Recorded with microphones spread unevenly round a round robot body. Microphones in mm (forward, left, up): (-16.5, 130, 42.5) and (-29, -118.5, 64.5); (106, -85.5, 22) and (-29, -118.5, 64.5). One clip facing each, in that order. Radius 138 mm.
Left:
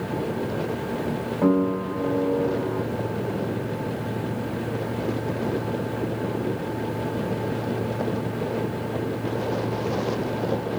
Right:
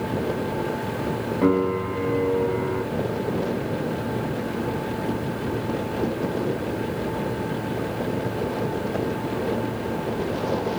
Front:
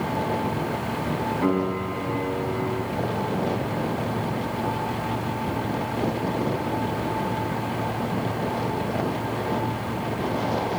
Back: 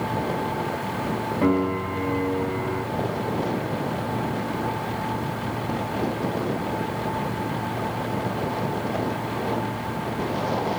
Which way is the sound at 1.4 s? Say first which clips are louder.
Even, back 3 dB; 140° right.